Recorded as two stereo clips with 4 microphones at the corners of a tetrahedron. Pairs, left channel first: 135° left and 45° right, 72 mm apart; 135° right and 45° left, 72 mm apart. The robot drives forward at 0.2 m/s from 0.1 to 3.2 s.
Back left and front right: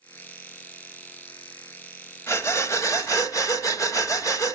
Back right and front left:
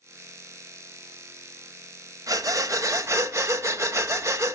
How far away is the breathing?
About 0.9 m.